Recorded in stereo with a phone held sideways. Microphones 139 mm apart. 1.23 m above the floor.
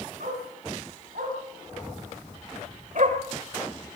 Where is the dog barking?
80° right, 4.5 m; by 3.2 s 60° right (ahead or behind), 1.7 m.